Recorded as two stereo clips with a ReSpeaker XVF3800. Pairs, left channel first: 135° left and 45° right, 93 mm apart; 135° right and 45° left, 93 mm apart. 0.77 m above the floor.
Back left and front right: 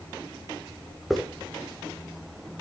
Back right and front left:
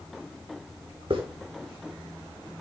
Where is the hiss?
45° left, 2.5 m.